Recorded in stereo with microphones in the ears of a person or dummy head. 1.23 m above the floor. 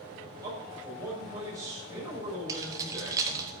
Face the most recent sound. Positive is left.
turn(degrees=-20)  # may be behind; listen again after turning